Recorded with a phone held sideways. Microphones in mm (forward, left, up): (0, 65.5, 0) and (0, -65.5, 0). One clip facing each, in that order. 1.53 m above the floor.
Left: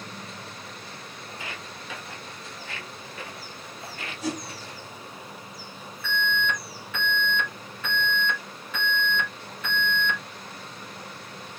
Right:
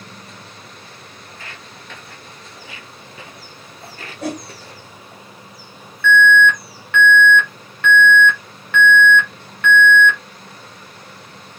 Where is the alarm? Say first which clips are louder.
Right 14 dB; 70° right (ahead or behind), 2 m.